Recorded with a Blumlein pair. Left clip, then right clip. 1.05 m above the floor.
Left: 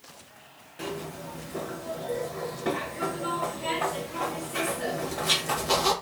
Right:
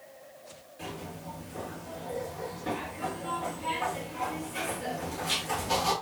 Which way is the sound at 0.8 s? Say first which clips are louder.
Left 5 dB; 40° left.